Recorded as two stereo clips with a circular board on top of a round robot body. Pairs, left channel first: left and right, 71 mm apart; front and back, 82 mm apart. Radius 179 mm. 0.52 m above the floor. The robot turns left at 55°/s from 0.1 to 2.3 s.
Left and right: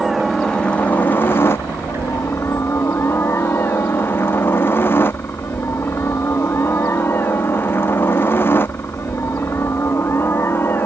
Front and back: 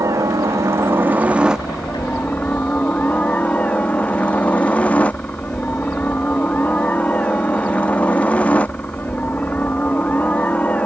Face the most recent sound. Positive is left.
turn(degrees=60)